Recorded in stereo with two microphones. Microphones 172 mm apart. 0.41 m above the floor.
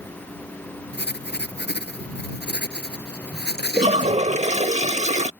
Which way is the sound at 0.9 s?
80° left.